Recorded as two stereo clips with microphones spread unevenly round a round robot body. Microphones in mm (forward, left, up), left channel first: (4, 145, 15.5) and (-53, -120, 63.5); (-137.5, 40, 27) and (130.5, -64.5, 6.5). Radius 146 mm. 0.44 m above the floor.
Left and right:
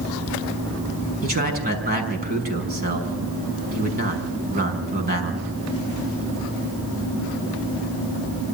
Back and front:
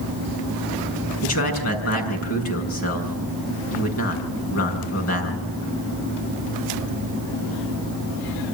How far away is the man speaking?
About 5.5 m.